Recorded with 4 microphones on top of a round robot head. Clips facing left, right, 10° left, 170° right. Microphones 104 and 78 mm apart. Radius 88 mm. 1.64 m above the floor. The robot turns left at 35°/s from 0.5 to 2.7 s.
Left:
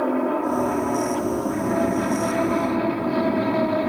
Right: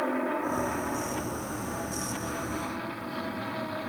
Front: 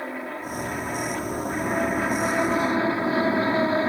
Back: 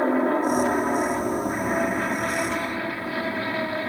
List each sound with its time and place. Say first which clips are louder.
0.0 s an aircraft: left 7 dB, back 11 dB; 145° left; by 3.9 s 70° left